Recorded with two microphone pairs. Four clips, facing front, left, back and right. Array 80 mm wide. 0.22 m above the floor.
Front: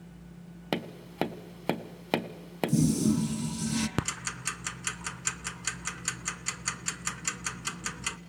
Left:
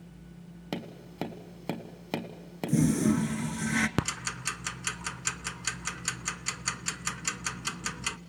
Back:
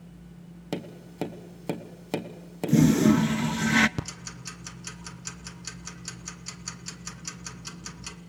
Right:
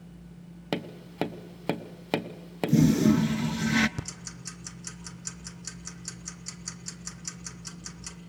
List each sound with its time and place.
0.7 s tapping: 30° right, 0.9 m
2.7 s a toilet flushing: 175° right, 0.5 m
4.0 s ticking: 60° left, 0.6 m